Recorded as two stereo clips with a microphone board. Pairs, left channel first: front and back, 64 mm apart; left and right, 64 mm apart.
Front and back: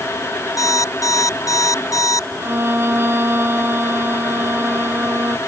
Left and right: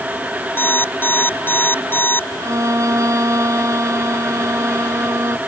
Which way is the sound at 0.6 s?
30° left.